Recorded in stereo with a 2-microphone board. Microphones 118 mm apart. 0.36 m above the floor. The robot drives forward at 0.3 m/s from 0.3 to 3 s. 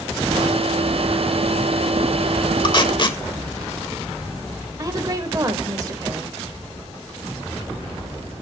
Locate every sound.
2.6 s tape being pulled: 45° left (ahead or behind), 0.8 m
4.8 s a woman speaking: 30° right (ahead or behind), 1.0 m